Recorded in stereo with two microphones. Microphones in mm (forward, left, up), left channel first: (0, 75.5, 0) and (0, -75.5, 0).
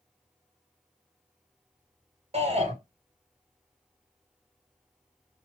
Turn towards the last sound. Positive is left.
turn(degrees=-40)  # may be behind; listen again after turning